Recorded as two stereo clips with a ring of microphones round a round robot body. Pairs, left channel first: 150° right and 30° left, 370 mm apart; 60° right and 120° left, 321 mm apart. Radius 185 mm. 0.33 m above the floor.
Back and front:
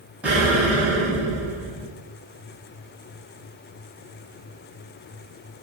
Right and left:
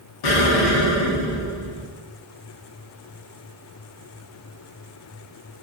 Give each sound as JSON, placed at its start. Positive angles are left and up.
{"t": 0.2, "sound": "an explosion", "azimuth_deg": -55, "distance_m": 0.6}